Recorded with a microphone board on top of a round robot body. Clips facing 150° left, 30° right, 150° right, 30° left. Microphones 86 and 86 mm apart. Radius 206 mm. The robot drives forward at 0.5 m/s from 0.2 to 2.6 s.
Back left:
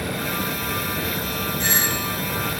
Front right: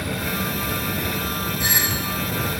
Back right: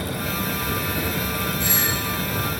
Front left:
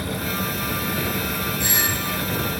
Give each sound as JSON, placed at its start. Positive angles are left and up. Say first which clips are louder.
{"t": 1.6, "sound": "a doorbell", "louder": "back left 1 dB, even", "azimuth_deg": 50, "distance_m": 6.0}